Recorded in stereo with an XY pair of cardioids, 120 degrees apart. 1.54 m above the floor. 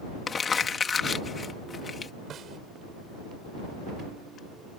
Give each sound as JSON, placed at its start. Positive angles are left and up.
{"t": 0.3, "sound": "crumpling", "azimuth_deg": 30}
{"t": 2.3, "sound": "a snare drum", "azimuth_deg": -50}